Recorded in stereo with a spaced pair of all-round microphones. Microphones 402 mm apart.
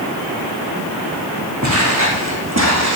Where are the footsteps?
40° right (ahead or behind), 5 m.